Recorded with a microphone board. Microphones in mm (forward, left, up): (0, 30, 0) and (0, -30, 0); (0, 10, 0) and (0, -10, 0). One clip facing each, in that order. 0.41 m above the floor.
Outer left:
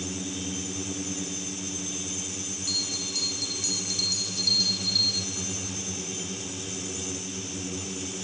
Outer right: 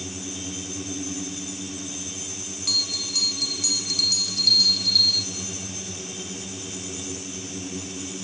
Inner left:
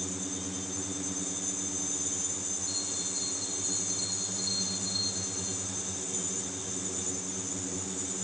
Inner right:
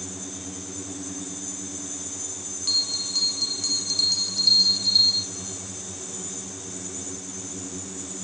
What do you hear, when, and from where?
2.7 s a bell: 70° right (ahead or behind), 0.9 m